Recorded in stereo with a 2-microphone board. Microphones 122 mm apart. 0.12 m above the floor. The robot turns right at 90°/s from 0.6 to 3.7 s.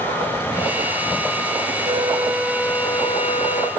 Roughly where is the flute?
Ahead right.